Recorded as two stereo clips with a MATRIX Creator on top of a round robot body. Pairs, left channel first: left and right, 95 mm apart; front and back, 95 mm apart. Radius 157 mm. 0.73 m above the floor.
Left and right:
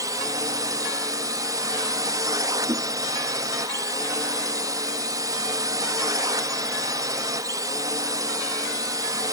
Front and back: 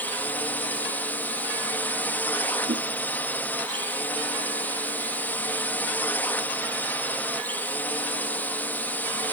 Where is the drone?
65° right.